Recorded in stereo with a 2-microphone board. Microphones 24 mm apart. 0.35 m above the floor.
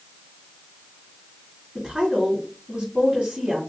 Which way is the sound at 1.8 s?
25° right (ahead or behind).